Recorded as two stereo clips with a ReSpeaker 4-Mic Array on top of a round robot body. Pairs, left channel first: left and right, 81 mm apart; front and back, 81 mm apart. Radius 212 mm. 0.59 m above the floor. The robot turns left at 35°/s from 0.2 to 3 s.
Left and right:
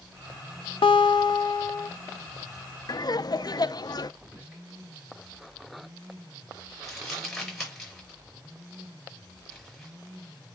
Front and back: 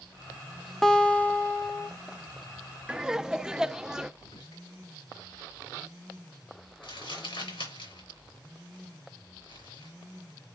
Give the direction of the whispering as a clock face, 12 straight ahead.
1 o'clock.